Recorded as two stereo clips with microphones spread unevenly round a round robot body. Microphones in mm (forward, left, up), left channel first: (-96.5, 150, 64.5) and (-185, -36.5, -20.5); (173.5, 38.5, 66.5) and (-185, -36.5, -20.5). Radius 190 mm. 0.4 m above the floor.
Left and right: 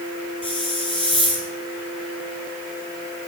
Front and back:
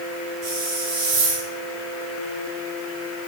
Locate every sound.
0.4 s a hiss: 150° left, 7.5 m